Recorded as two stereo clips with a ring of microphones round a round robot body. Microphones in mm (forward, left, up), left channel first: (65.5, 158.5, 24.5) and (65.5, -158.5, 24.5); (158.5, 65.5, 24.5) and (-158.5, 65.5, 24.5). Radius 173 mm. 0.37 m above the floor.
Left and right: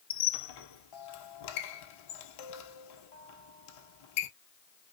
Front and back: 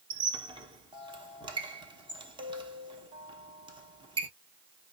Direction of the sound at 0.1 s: 105° left.